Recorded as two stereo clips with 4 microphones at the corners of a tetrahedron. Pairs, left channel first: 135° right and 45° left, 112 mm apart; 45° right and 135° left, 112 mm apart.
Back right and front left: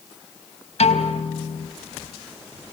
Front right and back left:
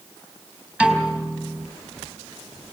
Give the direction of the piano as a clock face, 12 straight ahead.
5 o'clock.